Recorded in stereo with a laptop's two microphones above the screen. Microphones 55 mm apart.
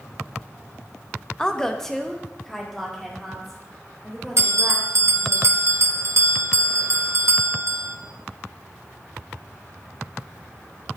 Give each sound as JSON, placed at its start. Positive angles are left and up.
{"t": 1.4, "sound": "a woman speaking", "side_deg": 15, "distance_m": 0.6}
{"t": 4.4, "sound": "a bell", "side_deg": -55, "distance_m": 0.7}